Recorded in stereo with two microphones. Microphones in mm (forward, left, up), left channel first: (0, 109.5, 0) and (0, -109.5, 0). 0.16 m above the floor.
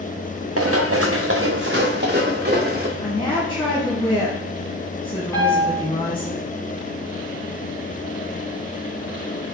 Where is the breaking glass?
I don't hear breaking glass.